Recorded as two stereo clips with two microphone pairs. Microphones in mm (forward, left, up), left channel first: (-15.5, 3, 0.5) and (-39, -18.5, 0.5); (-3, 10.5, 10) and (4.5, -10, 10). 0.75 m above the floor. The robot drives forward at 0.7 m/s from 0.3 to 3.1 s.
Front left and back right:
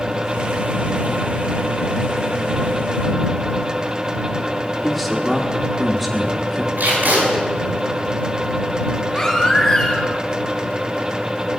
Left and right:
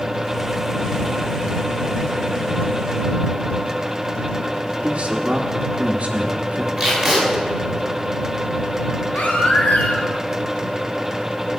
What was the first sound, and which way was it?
A man speaking, 50° right.